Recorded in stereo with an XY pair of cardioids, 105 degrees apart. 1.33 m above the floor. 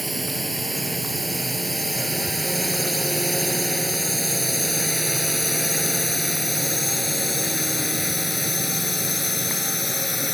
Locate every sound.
0.0 s a drone: 5° right; by 10.3 s 20° left